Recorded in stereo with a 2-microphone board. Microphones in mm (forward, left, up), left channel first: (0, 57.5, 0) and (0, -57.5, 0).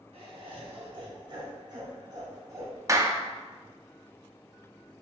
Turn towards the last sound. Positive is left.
turn(degrees=-30)  # may be behind; listen again after turning